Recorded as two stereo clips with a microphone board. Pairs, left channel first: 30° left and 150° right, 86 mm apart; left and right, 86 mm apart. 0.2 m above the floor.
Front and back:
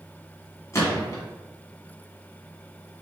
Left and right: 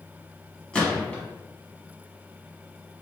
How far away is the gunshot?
About 1.2 m.